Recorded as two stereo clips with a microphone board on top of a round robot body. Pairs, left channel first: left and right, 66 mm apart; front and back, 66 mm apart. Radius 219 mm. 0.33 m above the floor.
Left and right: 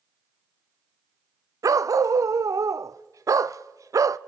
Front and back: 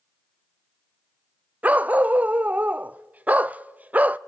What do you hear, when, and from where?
1.6 s a dog barking: 115° right, 0.6 m